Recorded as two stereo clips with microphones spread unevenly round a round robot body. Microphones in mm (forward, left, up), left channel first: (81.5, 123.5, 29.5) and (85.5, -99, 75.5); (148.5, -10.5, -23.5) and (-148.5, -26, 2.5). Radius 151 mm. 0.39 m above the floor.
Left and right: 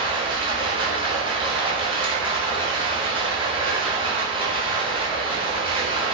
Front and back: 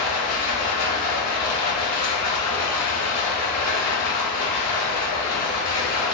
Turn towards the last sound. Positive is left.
turn(degrees=-15)